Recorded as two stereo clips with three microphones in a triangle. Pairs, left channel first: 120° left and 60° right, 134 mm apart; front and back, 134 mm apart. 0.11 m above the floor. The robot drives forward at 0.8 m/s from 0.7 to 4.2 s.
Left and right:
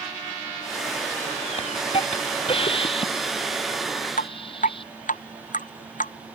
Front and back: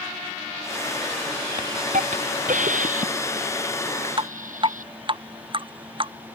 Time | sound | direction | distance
1.6 | a hiss | 165° left | ?
4.2 | dripping | 130° left | ?